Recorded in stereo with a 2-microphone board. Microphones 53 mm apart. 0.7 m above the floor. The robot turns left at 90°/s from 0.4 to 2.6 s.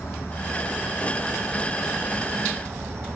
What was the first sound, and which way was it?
An insect, 130° left.